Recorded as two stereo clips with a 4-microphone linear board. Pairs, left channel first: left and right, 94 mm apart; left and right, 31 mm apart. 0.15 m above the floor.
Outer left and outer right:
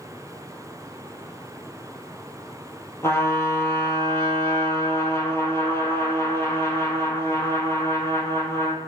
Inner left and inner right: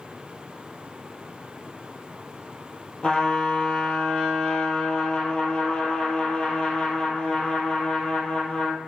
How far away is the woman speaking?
I don't hear a woman speaking.